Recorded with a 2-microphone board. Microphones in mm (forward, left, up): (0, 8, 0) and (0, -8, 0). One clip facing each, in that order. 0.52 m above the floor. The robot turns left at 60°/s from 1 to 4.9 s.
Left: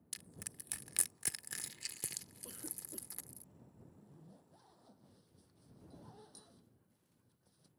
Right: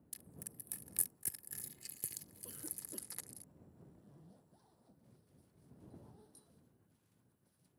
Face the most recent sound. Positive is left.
turn(degrees=135)